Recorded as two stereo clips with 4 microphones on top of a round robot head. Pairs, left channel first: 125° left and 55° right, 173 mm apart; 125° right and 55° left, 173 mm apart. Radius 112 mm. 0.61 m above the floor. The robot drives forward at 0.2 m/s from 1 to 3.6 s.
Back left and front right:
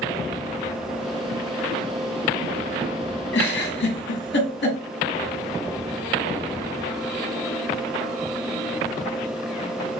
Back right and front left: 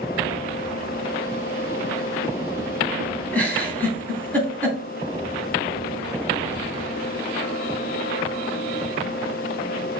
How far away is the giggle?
About 2 m.